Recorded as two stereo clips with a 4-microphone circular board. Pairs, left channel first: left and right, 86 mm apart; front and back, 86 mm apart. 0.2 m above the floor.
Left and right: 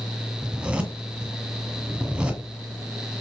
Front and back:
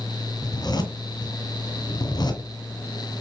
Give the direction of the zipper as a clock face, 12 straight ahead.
1 o'clock.